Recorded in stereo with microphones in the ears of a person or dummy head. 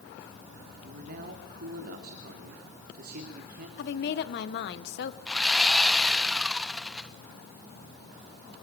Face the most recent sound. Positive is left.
turn(degrees=0)  # may be behind; listen again after turning